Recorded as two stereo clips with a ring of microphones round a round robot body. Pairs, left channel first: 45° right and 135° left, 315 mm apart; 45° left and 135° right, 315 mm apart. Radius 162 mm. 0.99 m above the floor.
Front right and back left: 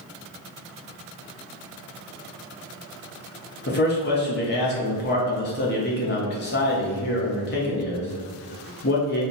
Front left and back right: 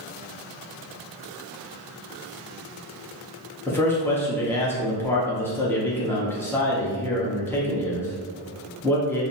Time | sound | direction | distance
3.7 | a man speaking | 30° right | 0.9 m